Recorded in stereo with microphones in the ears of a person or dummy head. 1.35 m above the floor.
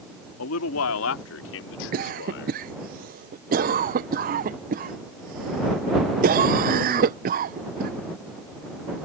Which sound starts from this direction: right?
A cough, at 1.9 s.